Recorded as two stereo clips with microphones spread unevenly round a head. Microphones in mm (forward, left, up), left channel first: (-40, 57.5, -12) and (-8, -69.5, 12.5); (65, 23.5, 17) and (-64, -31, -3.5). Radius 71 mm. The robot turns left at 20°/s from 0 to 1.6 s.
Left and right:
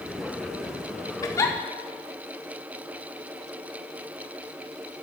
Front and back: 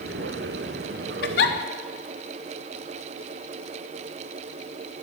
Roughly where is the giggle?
Ahead left.